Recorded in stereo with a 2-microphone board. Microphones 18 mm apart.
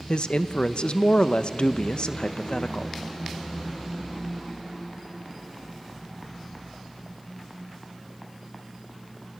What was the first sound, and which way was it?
A man speaking, 60° left (ahead or behind).